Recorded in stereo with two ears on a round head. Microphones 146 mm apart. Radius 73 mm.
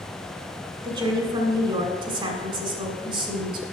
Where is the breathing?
No breathing in this recording.